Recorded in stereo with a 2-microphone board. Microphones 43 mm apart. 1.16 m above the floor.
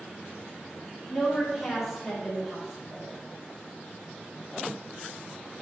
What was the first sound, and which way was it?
A woman speaking, centre (ahead or behind).